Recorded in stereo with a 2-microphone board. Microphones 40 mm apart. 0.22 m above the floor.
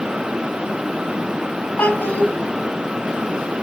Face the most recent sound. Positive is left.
turn(degrees=45)  # may be behind; listen again after turning